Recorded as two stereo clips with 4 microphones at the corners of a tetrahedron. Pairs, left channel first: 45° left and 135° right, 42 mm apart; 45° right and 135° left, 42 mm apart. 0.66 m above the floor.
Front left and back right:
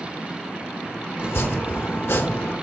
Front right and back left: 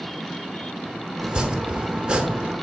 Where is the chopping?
65° left, 0.8 m.